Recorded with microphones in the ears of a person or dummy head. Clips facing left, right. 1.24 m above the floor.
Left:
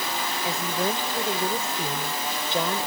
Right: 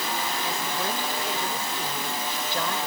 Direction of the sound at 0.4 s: 20° left (ahead or behind).